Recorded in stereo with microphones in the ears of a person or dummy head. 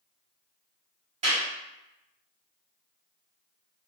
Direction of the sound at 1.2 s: 35° right (ahead or behind).